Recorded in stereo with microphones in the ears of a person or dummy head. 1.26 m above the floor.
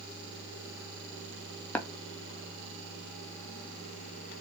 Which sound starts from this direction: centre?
Tapping, at 1.8 s.